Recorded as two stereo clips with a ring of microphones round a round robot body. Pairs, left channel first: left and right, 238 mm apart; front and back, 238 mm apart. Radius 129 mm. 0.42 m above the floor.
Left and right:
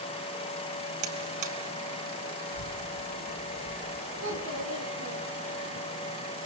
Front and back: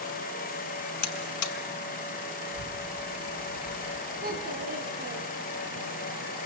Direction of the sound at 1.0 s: 25° right.